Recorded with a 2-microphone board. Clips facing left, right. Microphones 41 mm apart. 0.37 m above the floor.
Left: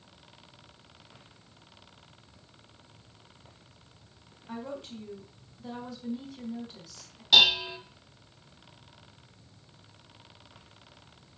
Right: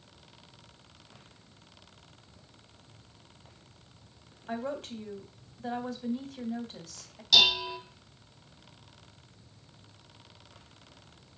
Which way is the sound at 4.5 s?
60° right (ahead or behind).